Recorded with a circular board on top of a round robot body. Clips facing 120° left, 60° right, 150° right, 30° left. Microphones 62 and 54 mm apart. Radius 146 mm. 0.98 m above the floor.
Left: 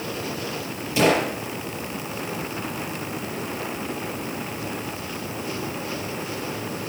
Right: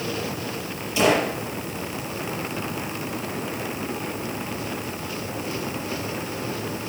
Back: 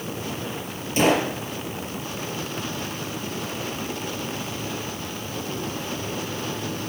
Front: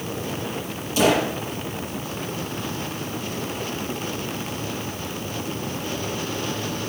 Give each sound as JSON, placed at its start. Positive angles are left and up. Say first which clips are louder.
{"t": 1.0, "sound": "a gunshot", "louder": "even, front 1 dB", "azimuth_deg": 175, "distance_m": 5.0}